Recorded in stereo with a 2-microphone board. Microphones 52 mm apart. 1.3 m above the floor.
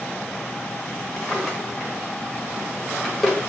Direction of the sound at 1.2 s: Centre (ahead or behind).